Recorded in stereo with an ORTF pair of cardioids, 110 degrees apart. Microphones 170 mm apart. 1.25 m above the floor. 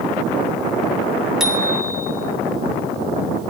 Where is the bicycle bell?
Straight ahead, 3 m.